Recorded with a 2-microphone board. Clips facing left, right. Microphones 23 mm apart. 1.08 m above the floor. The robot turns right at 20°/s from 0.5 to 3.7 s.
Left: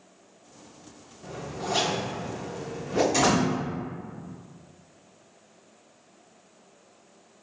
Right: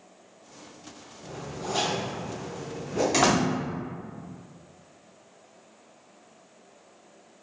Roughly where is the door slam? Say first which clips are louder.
Right 2 dB; right.